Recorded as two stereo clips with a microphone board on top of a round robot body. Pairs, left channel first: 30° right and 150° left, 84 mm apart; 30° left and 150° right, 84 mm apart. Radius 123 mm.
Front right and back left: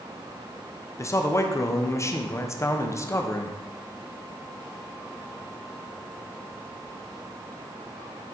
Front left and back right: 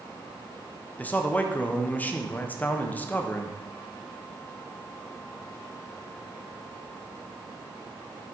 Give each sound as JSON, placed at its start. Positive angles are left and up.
{"t": 1.0, "sound": "a man speaking", "azimuth_deg": -25, "distance_m": 0.7}